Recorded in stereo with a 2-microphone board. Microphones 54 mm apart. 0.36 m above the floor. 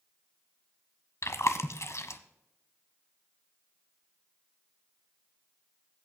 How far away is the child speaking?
No child speaking in this recording.